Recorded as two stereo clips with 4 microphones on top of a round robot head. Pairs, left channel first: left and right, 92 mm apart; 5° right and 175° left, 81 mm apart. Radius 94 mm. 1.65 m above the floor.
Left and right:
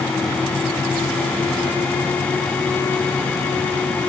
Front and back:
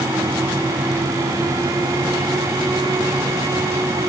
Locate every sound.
Only background noise.